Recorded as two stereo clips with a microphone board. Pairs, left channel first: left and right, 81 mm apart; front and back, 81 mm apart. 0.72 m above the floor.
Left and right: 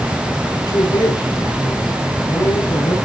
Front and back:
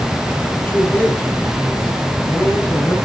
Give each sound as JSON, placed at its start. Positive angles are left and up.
{"t": 0.6, "sound": "a man speaking", "azimuth_deg": 75, "distance_m": 8.0}